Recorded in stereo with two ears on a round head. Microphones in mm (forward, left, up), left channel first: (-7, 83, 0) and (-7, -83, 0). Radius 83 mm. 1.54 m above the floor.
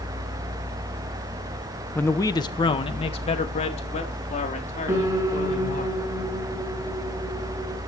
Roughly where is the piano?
Centre.